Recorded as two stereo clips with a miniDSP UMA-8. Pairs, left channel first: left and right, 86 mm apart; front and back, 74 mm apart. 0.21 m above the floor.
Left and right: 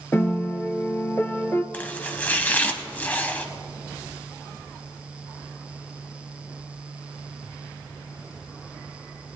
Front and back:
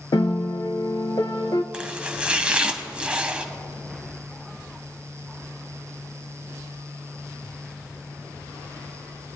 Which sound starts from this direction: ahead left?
A piano, at 0.1 s.